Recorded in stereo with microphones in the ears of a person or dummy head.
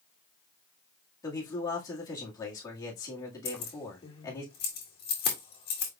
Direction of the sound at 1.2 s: 15° left (ahead or behind).